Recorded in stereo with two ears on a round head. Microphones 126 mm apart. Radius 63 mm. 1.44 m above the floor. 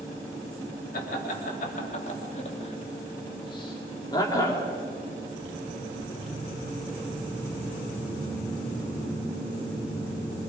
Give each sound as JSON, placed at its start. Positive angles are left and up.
{"t": 0.9, "sound": "laughter", "side_deg": 70, "distance_m": 3.5}